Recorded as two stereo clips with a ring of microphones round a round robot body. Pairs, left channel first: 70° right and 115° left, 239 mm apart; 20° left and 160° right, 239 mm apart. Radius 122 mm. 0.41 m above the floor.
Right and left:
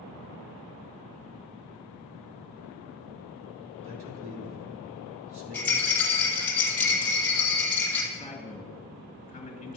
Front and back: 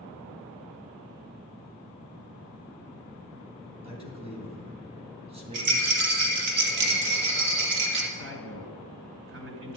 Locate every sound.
3.8 s a man speaking: 140° left, 3 m
5.5 s a rattle: 150° right, 2 m
8.1 s a man speaking: 130° right, 2.5 m